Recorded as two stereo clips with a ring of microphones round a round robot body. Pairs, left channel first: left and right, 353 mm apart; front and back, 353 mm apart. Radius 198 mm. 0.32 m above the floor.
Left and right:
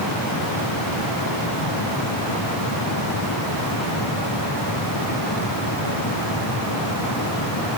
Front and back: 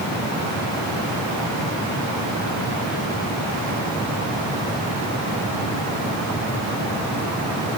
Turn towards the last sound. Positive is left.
No sound to turn to.